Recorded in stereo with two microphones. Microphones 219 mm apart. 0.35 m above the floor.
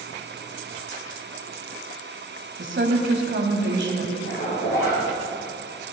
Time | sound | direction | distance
2.6 | a woman speaking | 50° right (ahead or behind) | 1.8 m
4.2 | a zipper | 60° left (ahead or behind) | 5.5 m